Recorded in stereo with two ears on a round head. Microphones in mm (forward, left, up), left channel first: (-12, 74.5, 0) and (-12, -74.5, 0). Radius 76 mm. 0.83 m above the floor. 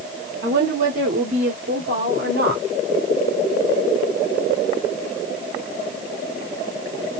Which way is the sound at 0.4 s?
45° right (ahead or behind).